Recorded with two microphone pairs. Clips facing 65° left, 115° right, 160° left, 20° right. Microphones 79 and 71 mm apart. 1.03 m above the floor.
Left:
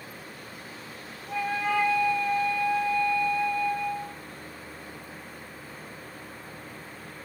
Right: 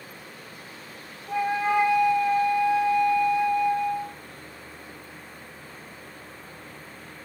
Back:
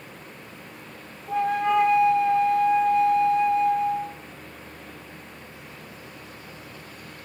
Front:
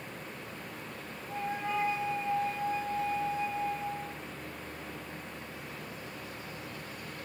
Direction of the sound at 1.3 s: 170° left.